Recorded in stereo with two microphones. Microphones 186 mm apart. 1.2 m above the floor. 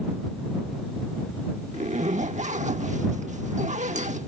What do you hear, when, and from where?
1.7 s a zipper: 40° right (ahead or behind)